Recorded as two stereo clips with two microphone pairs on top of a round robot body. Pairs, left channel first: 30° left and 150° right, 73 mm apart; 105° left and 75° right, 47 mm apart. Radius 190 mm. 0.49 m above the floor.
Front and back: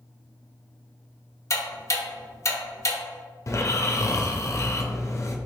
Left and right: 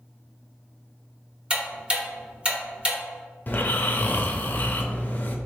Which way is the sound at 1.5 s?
10° right.